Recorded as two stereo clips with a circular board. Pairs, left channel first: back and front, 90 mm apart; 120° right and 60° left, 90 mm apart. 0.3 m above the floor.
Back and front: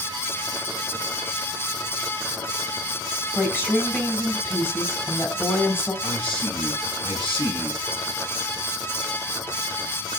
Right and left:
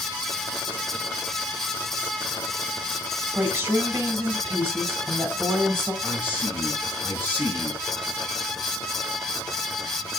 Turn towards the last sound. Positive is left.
turn(degrees=175)